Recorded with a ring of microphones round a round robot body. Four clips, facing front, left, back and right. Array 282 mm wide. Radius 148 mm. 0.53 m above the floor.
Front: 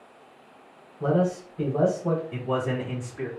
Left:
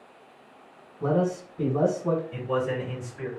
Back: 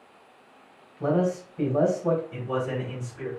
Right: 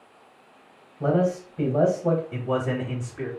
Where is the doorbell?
No doorbell in this recording.